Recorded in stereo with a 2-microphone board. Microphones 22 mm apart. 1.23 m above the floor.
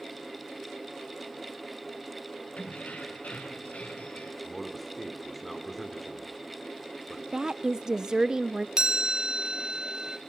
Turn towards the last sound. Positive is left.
turn(degrees=-30)  # may be behind; listen again after turning